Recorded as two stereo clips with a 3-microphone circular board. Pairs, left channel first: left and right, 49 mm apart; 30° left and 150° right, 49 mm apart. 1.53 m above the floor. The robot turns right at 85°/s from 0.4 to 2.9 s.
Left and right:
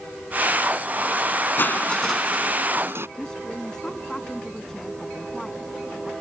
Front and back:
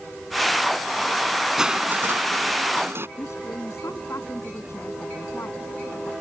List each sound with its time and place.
1.6 s crushing: 130° left; by 3.1 s 115° right
3.2 s a woman speaking: 10° left